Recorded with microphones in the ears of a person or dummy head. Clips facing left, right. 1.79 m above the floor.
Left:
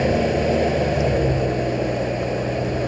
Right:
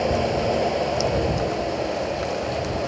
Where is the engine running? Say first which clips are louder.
Left 3 dB; 25° left (ahead or behind).